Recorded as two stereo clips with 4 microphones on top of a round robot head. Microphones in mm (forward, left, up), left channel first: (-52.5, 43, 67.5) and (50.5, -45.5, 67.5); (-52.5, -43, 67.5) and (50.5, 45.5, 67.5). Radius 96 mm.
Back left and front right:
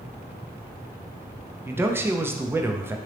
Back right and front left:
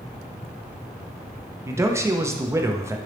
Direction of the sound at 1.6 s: 5° left.